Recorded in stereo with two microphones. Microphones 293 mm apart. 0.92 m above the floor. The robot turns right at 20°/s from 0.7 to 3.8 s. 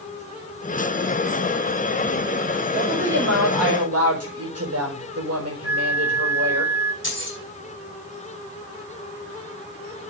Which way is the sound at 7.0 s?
40° left (ahead or behind).